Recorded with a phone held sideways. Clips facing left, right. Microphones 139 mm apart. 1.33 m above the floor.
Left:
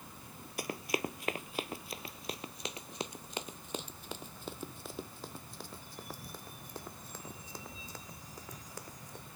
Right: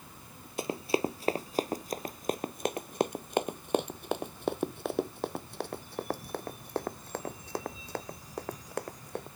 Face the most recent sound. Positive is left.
turn(degrees=-65)  # may be behind; listen again after turning